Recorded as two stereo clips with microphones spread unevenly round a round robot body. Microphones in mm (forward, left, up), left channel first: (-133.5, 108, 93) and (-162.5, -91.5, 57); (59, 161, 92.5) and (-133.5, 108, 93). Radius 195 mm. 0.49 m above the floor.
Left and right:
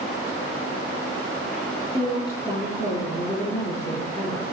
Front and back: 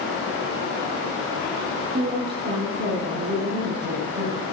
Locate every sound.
1.9 s a woman speaking: 155° left, 7 m